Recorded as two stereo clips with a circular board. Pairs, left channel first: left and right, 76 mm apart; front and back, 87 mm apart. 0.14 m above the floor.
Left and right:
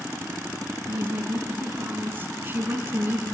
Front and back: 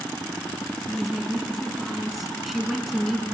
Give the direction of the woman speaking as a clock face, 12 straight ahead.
3 o'clock.